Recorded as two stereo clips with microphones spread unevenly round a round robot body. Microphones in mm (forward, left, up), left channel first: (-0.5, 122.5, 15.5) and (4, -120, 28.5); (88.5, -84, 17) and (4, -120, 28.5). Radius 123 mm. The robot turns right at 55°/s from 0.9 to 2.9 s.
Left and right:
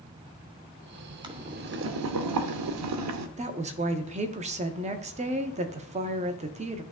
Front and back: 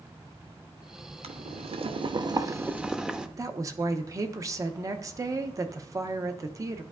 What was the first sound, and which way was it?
Boiling, 165° right.